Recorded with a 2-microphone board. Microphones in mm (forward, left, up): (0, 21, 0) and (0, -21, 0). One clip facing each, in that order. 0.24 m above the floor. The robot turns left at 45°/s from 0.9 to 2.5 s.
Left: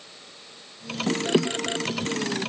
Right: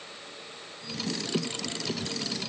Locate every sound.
Only background noise.